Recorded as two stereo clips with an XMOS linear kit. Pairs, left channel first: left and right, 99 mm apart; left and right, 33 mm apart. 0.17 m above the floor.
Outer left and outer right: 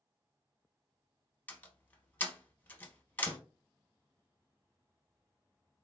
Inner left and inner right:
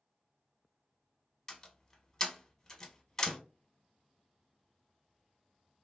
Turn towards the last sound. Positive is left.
turn(degrees=20)  # may be behind; listen again after turning